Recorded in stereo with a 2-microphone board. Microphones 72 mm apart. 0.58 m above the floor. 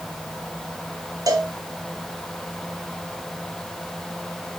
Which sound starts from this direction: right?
A cowbell, at 1.3 s.